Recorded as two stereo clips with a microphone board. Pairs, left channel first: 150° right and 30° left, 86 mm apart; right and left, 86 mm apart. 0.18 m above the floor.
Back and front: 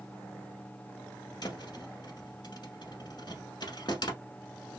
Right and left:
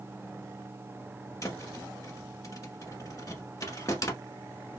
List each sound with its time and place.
1.4 s a thud: 130° right, 0.9 m